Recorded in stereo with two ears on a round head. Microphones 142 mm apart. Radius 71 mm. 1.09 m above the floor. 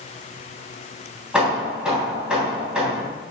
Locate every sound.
1.3 s hammering: 5° right (ahead or behind), 3 m